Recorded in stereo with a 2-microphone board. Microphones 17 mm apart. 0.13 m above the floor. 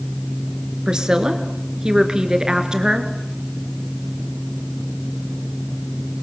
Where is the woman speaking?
45° right (ahead or behind), 2 m.